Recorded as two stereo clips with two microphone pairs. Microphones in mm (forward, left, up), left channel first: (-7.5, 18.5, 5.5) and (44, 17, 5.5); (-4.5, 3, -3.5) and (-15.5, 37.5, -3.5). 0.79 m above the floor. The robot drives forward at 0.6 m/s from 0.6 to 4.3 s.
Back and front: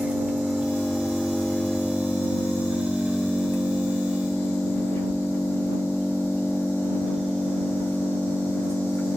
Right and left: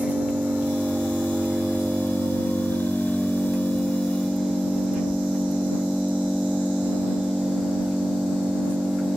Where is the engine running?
65° left, 1.0 m; by 9.2 s 155° left, 2.0 m.